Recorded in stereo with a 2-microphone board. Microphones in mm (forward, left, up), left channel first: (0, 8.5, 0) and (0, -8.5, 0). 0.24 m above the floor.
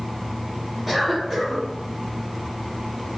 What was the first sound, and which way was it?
A cough, 15° right (ahead or behind).